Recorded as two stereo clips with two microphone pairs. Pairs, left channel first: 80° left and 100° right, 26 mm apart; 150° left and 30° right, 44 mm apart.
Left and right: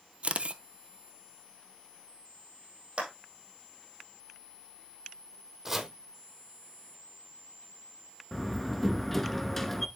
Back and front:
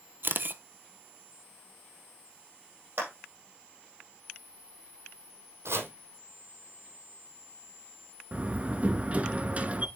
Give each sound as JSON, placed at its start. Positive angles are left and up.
{"t": 0.2, "sound": "a camera shutter", "azimuth_deg": -60, "distance_m": 0.7}
{"t": 3.0, "sound": "a clap", "azimuth_deg": -60, "distance_m": 5.0}
{"t": 5.7, "sound": "chopping", "azimuth_deg": -20, "distance_m": 1.4}
{"t": 8.3, "sound": "a door slam", "azimuth_deg": 5, "distance_m": 0.9}